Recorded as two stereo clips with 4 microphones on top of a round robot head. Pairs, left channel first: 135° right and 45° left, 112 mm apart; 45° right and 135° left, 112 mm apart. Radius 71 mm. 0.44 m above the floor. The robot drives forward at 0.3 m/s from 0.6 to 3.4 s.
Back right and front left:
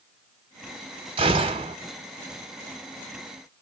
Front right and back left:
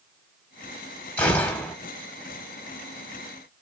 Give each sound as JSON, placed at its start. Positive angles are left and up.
{"t": 1.2, "sound": "a gunshot", "azimuth_deg": 25, "distance_m": 1.2}